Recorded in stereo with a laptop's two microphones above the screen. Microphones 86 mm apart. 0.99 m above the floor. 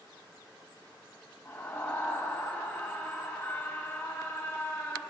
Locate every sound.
1.4 s a scream: 25° left (ahead or behind), 1.7 m